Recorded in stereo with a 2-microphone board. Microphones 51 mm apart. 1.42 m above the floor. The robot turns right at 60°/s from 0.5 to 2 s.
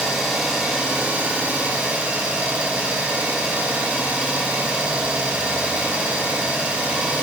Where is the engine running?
10° right (ahead or behind), 0.7 m; by 7.2 s 25° right (ahead or behind), 0.7 m.